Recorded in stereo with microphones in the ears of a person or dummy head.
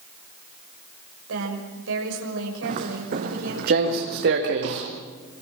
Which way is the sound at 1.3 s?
85° right.